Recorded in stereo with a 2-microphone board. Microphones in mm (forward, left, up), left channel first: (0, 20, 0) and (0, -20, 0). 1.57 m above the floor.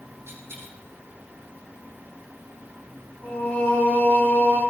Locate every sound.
0.3 s a dropped coin: 80° right, 8 m
3.2 s singing: 40° left (ahead or behind), 6.5 m